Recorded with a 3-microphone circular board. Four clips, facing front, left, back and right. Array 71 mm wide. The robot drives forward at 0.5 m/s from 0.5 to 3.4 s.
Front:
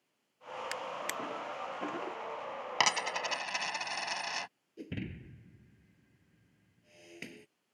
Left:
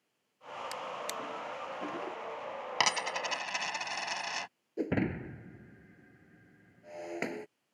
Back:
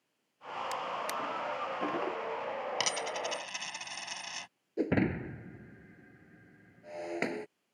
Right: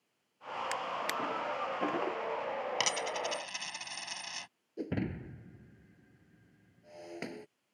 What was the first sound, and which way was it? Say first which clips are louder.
A drawer: right 4 dB, back 3 dB; 40° right.